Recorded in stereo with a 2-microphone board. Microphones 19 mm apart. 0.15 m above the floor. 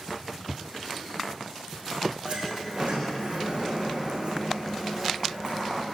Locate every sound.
2.2 s a sliding door: 75° right (ahead or behind), 8 m